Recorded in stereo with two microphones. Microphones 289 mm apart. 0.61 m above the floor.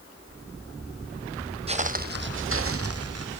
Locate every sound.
1.7 s footsteps: 20° right (ahead or behind), 0.8 m; by 3.4 s 60° right (ahead or behind), 1.4 m